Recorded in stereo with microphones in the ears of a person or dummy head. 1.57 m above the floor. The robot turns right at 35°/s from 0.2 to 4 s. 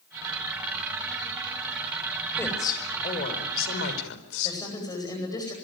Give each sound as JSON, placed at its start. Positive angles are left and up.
{"t": 2.4, "sound": "a woman speaking", "azimuth_deg": 10, "distance_m": 5.5}
{"t": 4.4, "sound": "a woman speaking", "side_deg": 20, "distance_m": 9.5}